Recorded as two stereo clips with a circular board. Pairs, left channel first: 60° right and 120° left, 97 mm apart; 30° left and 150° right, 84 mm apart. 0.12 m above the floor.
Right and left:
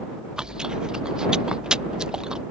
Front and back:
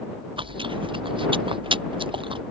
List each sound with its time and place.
0.4 s chewing: 160° right